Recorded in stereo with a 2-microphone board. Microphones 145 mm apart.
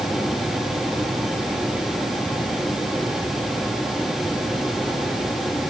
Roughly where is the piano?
No piano in this recording.